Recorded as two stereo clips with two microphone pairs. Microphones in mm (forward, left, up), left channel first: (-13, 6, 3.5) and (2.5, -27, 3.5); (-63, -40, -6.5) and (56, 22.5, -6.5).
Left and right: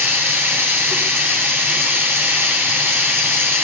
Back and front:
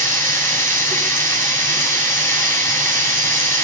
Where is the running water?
80° right, 10 m.